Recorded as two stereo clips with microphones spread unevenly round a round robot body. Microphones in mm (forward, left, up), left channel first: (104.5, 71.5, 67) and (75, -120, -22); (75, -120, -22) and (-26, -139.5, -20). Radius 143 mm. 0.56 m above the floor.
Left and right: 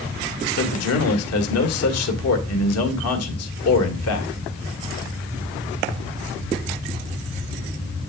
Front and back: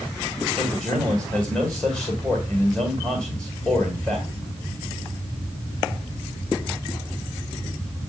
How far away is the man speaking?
About 1.7 m.